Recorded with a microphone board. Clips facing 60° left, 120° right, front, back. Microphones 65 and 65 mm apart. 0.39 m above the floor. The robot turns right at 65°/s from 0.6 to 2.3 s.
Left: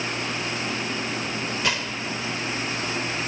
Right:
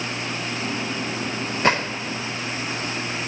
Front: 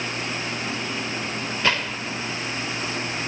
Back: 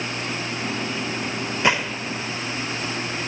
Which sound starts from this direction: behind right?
A gunshot, at 1.6 s.